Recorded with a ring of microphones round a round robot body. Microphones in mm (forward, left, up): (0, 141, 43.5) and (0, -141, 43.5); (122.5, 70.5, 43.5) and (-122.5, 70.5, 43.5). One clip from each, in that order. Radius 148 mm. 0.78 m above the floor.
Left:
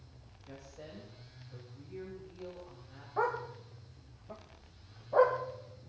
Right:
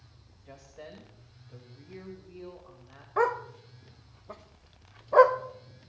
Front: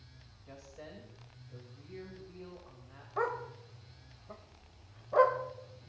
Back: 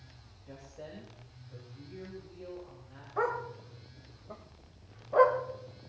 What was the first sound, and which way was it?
A woman speaking, 55° right.